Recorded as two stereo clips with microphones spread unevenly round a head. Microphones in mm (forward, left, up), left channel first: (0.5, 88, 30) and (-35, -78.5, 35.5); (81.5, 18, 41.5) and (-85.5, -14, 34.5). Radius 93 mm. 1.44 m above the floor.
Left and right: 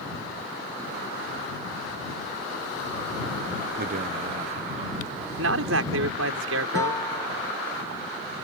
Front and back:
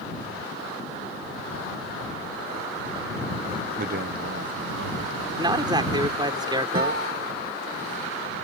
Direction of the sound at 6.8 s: 150° left.